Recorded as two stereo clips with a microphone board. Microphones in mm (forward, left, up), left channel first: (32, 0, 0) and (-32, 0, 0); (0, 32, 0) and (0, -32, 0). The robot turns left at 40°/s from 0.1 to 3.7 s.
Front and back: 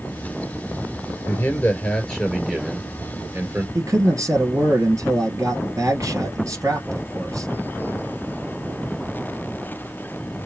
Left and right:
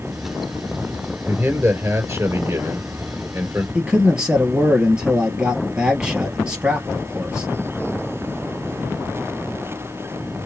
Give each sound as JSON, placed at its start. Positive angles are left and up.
{"t": 1.3, "sound": "a man speaking", "azimuth_deg": -40, "distance_m": 3.0}
{"t": 3.8, "sound": "a man speaking", "azimuth_deg": -165, "distance_m": 2.0}